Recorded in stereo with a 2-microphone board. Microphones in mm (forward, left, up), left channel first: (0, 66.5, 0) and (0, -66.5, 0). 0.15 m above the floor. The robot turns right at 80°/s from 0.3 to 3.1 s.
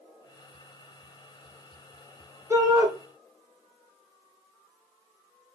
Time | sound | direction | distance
2.5 | a shout | 20° right (ahead or behind) | 1.3 m